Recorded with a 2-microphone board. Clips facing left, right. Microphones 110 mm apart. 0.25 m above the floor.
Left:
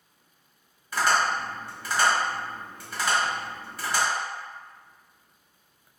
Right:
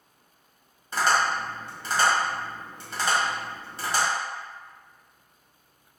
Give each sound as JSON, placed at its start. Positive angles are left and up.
{"t": 0.9, "sound": "tapping", "side_deg": -30, "distance_m": 1.2}